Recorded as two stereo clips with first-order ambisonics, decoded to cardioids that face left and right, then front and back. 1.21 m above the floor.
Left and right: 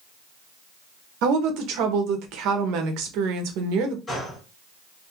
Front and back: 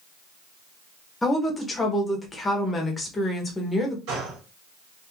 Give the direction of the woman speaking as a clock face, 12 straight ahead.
3 o'clock.